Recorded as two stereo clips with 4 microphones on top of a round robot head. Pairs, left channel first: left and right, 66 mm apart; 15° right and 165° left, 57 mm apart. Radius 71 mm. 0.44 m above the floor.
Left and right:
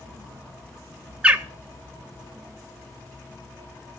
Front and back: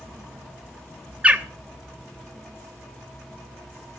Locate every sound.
1.2 s a bird: 145° right, 1.2 m